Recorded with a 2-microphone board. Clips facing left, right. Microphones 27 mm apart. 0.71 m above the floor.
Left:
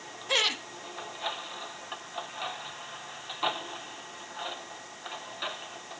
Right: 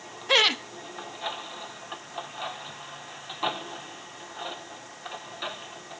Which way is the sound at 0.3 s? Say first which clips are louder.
Right 6 dB; 25° right (ahead or behind).